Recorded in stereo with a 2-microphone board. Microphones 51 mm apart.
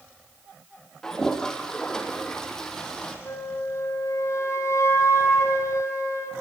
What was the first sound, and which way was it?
A toilet flushing, 10° left (ahead or behind).